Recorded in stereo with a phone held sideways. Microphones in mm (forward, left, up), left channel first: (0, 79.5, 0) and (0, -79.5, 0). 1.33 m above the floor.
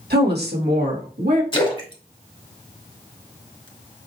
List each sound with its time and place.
0.1 s a woman speaking: 75° right (ahead or behind), 1.5 m; by 1.4 s 70° right (ahead or behind), 2.5 m
1.5 s a splash: 30° left (ahead or behind), 1.3 m